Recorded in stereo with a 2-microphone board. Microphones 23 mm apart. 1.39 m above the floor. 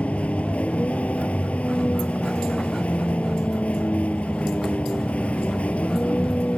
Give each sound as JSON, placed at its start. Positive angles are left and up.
{"t": 0.0, "sound": "a vehicle", "side_deg": 60}